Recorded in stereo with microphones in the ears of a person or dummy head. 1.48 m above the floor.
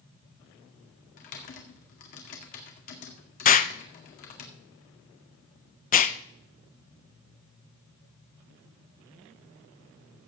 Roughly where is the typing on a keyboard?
Left.